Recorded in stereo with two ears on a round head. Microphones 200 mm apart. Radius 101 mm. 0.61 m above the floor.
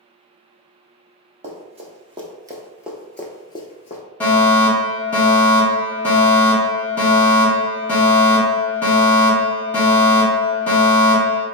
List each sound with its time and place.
1.4 s running footsteps: 30° right (ahead or behind), 1.1 m; by 4.0 s 35° left (ahead or behind), 0.6 m
4.2 s a fire alarm: 5° left (ahead or behind), 1.5 m